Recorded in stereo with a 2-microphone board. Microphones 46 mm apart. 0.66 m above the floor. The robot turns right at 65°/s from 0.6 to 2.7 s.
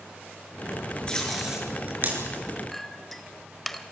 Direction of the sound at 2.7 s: 5° left (ahead or behind).